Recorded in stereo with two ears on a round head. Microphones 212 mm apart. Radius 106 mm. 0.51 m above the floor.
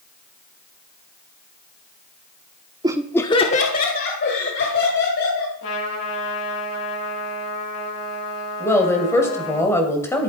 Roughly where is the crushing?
No crushing in this recording.